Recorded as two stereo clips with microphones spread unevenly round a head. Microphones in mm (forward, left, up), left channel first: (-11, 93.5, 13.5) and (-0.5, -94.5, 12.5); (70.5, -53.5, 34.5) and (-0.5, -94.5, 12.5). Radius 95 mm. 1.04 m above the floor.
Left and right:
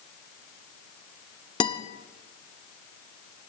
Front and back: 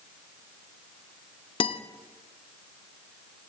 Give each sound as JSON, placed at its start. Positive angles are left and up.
{"t": 1.6, "sound": "a guitar", "azimuth_deg": 25, "distance_m": 1.1}